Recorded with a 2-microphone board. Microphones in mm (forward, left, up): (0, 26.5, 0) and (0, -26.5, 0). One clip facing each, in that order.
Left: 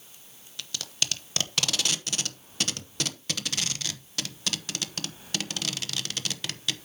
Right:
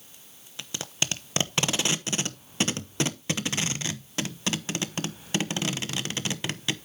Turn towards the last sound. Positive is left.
turn(degrees=-25)  # may be behind; listen again after turning